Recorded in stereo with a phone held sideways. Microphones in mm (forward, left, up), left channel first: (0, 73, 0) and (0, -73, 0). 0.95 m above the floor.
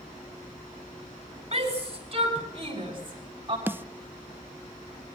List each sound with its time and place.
1.5 s a shout: 40° right (ahead or behind), 7 m; by 3.6 s 35° right (ahead or behind), 8 m
3.7 s a snare drum: 15° right (ahead or behind), 0.7 m